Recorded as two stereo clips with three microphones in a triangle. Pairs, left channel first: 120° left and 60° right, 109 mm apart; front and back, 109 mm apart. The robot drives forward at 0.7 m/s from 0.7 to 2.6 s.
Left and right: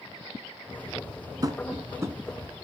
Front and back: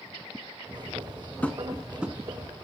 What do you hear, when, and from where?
1.4 s tapping: 70° right, 1.2 m; by 2.2 s 115° right, 1.2 m